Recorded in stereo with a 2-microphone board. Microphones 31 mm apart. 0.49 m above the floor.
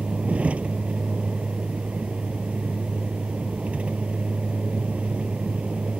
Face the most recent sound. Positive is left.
turn(degrees=-45)  # may be behind; listen again after turning